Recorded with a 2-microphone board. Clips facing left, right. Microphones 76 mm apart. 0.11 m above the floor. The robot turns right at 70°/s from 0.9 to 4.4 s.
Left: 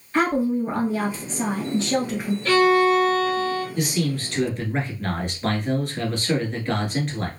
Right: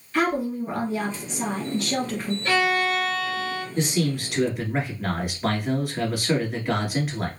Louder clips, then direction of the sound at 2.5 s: Left 6 dB; 25° right.